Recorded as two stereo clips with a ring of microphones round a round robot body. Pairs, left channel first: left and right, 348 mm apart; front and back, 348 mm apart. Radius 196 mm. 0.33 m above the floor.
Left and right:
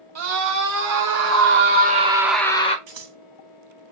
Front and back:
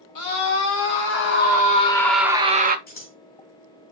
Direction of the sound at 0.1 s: 50° right.